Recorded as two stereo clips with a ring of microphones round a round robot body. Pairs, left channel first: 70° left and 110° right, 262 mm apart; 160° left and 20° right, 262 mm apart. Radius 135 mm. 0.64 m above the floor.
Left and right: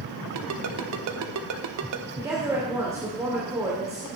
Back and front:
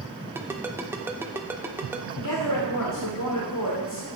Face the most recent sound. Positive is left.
turn(degrees=170)